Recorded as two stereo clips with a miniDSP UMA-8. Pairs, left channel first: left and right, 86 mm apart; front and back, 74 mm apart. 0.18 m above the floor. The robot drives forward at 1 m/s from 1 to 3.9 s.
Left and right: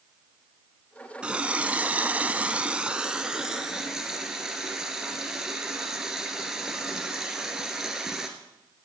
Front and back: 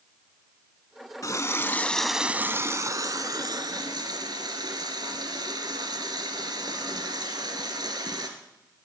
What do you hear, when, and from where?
1.2 s a running tap: 15° right, 1.1 m; by 8.3 s 175° right, 2.0 m